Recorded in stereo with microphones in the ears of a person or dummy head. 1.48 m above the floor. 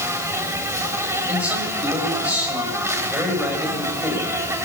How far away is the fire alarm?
No fire alarm in this recording.